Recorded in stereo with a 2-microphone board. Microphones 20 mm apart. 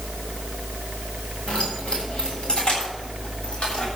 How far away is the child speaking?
I don't hear a child speaking.